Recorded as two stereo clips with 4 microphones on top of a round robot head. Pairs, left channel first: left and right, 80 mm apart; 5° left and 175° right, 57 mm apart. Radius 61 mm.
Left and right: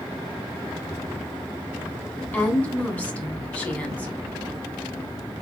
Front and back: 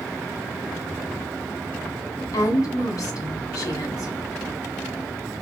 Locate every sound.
2.3 s a woman speaking: 20° left, 2.5 m